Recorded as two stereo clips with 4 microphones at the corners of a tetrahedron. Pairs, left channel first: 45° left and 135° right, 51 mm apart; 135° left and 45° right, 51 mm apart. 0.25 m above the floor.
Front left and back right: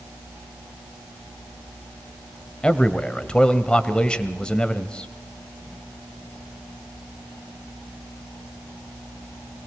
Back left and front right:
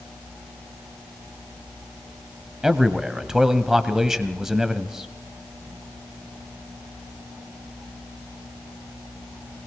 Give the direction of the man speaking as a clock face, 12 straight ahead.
11 o'clock.